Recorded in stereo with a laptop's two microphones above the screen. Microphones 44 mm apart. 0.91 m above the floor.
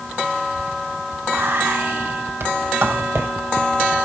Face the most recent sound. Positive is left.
turn(degrees=-60)  # may be behind; listen again after turning